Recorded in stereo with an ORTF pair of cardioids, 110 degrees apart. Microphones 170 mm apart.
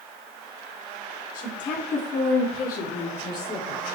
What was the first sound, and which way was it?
A woman speaking, 50° left.